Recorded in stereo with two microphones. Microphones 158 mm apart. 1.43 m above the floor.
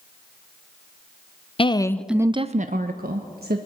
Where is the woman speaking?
35° left (ahead or behind), 0.7 m; by 3.6 s 80° right, 1.3 m.